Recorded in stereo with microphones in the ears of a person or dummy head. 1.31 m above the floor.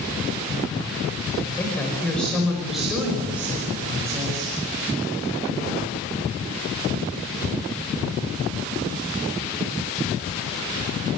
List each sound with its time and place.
1.4 s a woman speaking: 10° left (ahead or behind), 5.5 m; by 4.5 s 15° right (ahead or behind), 7 m